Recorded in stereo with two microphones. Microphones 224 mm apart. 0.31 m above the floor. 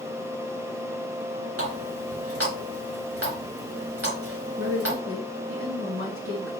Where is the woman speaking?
70° right (ahead or behind), 2.5 m.